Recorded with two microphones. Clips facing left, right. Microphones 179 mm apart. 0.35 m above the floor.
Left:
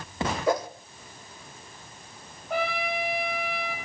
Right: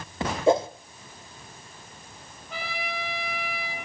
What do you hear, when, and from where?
0.5 s a whoosh: 25° right (ahead or behind), 1.0 m
2.5 s a trumpet: 60° left (ahead or behind), 4 m